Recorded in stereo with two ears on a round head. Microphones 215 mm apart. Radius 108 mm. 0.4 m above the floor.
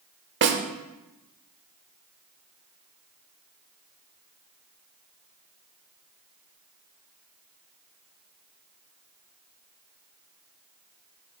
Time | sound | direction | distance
0.4 | a snare drum | 50° right (ahead or behind) | 1.0 m